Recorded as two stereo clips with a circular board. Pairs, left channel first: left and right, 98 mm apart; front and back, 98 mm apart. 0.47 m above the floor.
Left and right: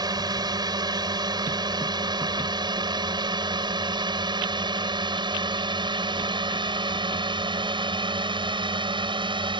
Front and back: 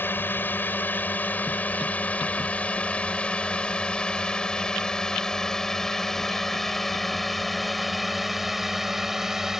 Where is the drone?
65° right; by 9.6 s 95° right.